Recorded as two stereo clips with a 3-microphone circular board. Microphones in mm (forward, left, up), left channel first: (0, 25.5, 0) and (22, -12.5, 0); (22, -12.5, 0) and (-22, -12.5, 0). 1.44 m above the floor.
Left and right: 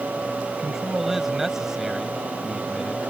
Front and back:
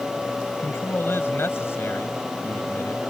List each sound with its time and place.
0.6 s a man speaking: 25° left